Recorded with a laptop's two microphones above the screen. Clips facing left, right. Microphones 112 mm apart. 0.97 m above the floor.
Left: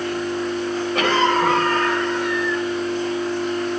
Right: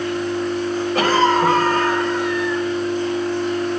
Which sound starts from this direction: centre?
A cough, at 0.9 s.